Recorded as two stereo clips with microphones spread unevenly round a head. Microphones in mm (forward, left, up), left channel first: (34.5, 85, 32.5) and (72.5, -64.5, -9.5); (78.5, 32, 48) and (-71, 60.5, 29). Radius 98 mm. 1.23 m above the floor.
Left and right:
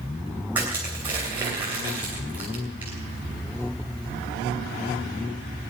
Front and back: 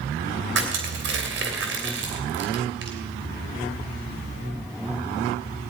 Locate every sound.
0.6 s crushing: 160° right, 2.5 m